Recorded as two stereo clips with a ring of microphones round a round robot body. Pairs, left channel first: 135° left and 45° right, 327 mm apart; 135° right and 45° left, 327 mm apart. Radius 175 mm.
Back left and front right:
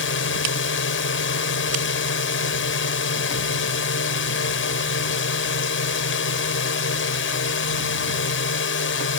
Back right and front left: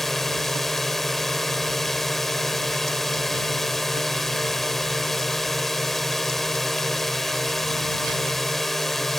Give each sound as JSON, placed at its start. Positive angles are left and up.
{"t": 0.0, "sound": "a drone", "azimuth_deg": 135}